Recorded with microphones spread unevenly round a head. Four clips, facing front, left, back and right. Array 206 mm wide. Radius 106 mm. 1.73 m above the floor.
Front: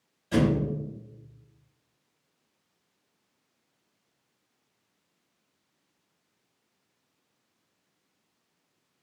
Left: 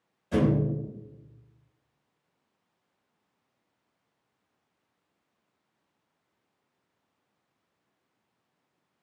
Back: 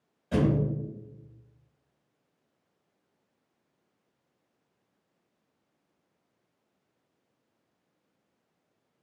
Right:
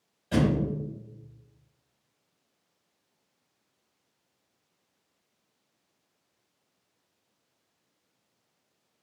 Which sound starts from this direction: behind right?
A thud, at 0.3 s.